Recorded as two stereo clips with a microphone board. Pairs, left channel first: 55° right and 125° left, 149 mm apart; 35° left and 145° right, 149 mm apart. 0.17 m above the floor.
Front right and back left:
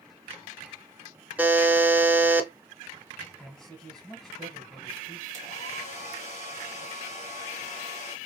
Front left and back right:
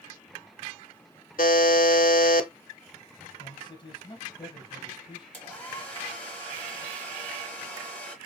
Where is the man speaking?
25° left, 1.7 m.